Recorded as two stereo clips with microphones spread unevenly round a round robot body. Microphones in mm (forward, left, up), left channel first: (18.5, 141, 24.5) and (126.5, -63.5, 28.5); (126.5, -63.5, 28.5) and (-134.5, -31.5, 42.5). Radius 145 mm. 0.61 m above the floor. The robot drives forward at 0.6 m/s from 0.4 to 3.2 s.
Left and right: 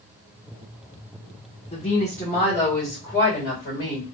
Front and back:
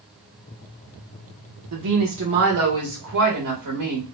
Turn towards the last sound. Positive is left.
turn(degrees=180)